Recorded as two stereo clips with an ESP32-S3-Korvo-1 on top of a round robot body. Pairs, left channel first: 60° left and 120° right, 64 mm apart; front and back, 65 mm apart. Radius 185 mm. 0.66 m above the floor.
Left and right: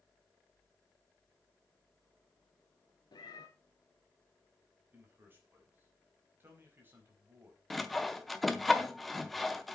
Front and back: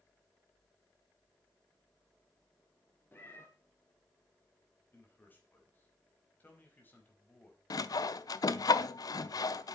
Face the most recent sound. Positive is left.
turn(degrees=-30)